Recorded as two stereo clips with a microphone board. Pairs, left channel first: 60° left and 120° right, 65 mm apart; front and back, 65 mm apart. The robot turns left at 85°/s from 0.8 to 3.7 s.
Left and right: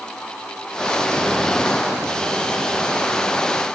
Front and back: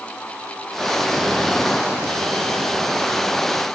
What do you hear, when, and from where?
Only background noise.